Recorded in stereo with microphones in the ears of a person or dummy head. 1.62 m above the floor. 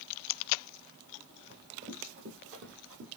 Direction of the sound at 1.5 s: 55° right (ahead or behind).